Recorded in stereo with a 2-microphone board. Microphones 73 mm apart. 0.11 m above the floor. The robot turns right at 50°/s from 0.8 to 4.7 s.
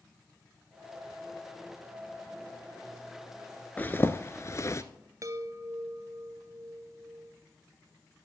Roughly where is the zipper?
Left.